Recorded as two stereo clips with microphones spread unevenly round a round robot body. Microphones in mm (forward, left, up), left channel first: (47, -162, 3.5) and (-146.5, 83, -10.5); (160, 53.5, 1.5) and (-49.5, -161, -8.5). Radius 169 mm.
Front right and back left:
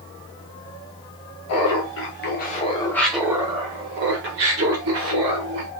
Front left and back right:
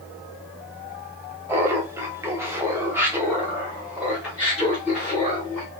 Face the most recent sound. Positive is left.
turn(degrees=135)